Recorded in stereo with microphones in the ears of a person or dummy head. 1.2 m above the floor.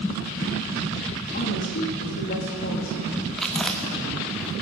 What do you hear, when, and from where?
1.3 s a woman speaking: 50° left (ahead or behind), 1.7 m
3.4 s chewing: centre (ahead or behind), 1.0 m